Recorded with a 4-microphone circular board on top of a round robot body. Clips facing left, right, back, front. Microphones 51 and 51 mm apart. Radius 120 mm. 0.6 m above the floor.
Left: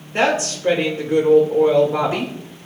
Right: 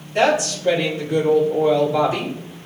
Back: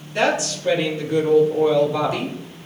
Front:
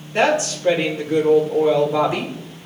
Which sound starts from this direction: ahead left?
A woman speaking, at 0.1 s.